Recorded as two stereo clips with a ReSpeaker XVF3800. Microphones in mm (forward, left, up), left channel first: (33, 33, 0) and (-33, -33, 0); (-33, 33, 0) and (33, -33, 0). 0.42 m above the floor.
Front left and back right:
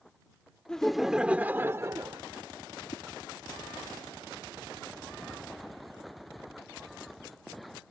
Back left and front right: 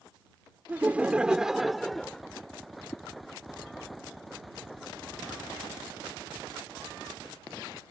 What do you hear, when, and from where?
0.7 s laughter: 20° right; by 2.2 s 140° right
2.9 s a whoosh: 70° left